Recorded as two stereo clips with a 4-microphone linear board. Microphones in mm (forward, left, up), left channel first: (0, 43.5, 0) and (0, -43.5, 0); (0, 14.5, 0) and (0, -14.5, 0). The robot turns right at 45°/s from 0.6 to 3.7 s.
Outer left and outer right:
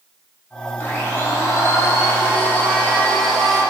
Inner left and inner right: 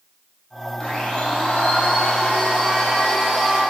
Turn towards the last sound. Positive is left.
turn(degrees=-175)